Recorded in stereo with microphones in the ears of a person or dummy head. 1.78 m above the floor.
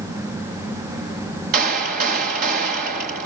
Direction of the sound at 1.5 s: 50° right (ahead or behind).